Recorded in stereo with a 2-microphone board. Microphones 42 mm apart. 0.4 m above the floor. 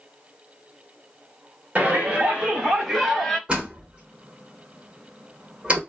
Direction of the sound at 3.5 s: 30° right (ahead or behind).